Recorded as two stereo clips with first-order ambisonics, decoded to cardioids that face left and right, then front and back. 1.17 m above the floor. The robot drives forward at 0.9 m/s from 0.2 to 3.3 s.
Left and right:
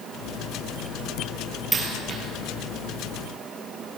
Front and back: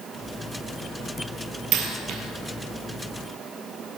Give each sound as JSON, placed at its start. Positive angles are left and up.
{"t": 1.7, "sound": "a dropped coin", "azimuth_deg": -160, "distance_m": 2.5}